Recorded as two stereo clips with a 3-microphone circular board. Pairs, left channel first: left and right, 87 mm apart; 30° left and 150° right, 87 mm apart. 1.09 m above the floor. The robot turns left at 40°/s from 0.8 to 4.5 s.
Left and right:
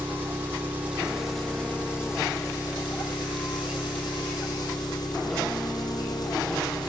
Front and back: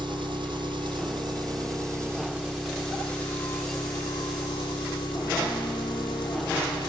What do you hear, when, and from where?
0.0 s an engine running: 160° right, 2 m; by 6.9 s 50° left, 2 m